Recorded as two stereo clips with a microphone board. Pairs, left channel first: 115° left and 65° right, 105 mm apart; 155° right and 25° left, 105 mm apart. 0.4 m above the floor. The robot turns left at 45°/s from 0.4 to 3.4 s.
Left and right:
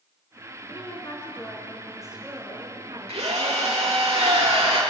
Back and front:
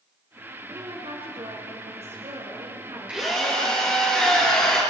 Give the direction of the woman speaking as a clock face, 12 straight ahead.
9 o'clock.